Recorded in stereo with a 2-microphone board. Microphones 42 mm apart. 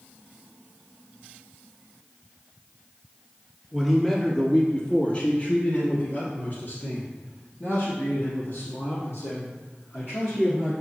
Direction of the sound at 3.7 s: Centre (ahead or behind).